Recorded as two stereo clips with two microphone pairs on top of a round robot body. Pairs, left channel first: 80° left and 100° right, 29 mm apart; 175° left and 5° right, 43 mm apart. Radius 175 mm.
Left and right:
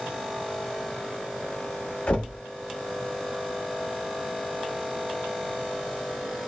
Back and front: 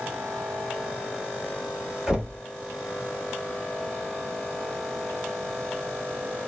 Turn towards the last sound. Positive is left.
turn(degrees=75)